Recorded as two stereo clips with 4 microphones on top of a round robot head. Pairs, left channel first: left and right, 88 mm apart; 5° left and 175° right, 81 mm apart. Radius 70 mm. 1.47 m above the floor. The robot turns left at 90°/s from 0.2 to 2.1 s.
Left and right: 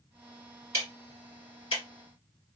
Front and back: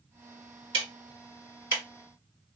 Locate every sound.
0.7 s ticking: 150° right, 1.8 m; by 1.8 s 110° left, 1.8 m